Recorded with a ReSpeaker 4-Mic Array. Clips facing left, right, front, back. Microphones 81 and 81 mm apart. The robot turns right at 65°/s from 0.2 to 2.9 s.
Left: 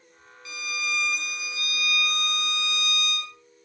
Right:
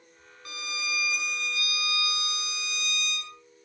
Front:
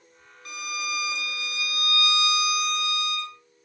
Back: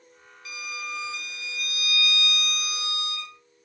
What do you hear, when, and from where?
0.5 s a violin: 45° right, 0.8 m; by 3.4 s 115° left, 0.8 m